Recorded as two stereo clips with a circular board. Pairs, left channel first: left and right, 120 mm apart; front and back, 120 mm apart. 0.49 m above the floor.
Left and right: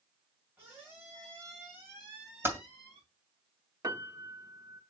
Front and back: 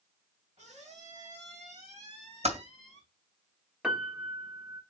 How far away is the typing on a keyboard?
About 2.5 m.